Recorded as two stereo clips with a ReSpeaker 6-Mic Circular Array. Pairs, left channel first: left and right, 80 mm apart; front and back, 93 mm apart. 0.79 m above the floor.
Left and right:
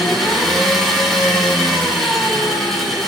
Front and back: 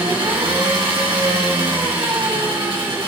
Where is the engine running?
175° left, 1.9 m.